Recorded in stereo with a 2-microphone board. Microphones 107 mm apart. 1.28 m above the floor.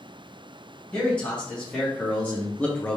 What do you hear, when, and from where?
0.9 s a man speaking: 15° left (ahead or behind), 1.5 m; by 3.0 s 10° left (ahead or behind), 0.5 m